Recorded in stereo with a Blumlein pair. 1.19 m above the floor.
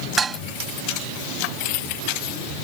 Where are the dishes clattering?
15° right.